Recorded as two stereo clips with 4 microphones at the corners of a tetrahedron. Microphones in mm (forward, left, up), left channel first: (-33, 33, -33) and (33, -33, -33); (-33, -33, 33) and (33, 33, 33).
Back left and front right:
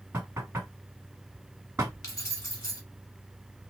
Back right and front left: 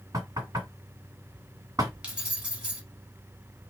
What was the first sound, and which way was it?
Knocking, 10° left.